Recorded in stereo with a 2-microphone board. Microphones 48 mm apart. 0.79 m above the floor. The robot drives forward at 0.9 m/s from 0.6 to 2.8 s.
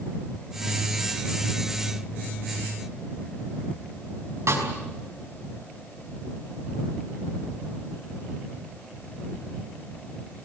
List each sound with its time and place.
4.5 s a snare drum: 75° right (ahead or behind), 5.5 m